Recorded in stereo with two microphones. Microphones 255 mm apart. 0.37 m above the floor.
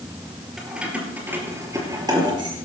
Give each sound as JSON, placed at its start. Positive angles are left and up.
{"t": 0.6, "sound": "keys jangling", "side_deg": 0, "distance_m": 5.0}